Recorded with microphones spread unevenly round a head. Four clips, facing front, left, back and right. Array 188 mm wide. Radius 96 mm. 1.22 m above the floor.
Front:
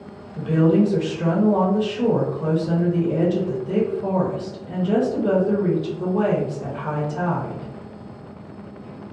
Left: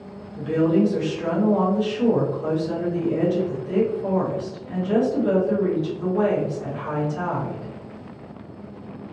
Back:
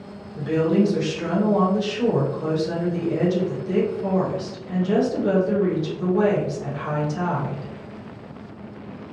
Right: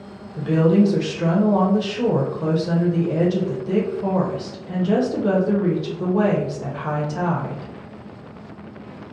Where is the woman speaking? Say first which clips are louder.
Right 2 dB, front 2 dB; 75° right, 0.8 m.